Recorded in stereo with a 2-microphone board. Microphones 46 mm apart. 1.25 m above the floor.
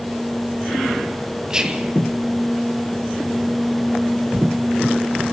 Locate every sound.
1.5 s whispering: 15° right (ahead or behind), 0.7 m